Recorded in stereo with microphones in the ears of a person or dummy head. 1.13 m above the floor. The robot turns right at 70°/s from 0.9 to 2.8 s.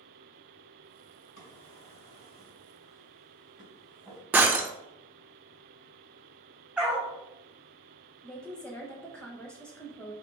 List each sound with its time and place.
1.4 s a drawer: 70° left (ahead or behind), 2.0 m; by 4.2 s 5° right (ahead or behind), 2.0 m
4.3 s breaking glass: 10° right (ahead or behind), 0.5 m
6.8 s a dog barking: 5° right (ahead or behind), 0.7 m
8.2 s a woman speaking: 5° left (ahead or behind), 0.8 m